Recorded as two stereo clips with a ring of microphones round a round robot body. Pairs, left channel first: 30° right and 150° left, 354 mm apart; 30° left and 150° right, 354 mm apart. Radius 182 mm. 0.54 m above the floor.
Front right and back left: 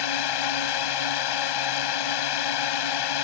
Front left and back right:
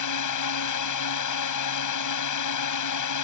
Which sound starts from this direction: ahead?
A drone, at 0.0 s.